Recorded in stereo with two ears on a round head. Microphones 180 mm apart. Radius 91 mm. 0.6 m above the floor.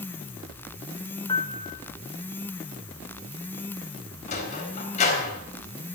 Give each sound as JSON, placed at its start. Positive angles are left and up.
{"t": 1.3, "sound": "a piano", "side_deg": 25, "distance_m": 1.6}
{"t": 4.3, "sound": "a sliding door", "side_deg": 40, "distance_m": 4.0}